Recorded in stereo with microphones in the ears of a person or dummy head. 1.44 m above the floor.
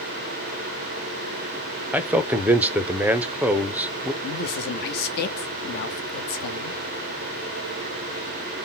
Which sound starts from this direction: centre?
A man speaking, at 1.9 s.